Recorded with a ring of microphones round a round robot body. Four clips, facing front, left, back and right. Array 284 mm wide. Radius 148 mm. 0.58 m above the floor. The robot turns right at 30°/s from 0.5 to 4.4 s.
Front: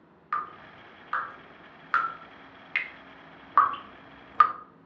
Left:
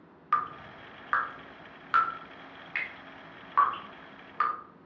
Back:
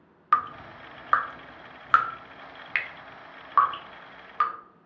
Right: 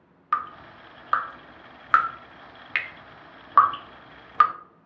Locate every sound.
0.3 s dripping: straight behind, 0.6 m; by 4.5 s 60° right, 0.6 m